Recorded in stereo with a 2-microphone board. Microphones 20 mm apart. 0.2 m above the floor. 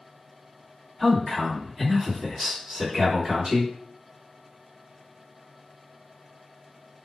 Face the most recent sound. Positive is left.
turn(degrees=-55)  # may be behind; listen again after turning